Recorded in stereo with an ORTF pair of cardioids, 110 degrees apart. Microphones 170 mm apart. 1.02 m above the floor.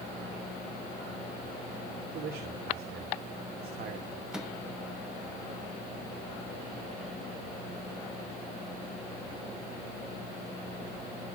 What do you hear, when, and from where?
2.1 s a man speaking: 65° right, 2.5 m
4.3 s a microwave: 5° right, 1.5 m